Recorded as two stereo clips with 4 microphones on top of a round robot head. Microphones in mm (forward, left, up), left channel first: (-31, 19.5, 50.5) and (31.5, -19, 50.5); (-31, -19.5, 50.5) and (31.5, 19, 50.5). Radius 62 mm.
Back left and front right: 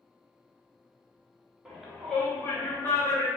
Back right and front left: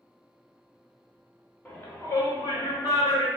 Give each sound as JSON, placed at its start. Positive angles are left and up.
{"t": 1.6, "sound": "a shout", "azimuth_deg": -105, "distance_m": 1.5}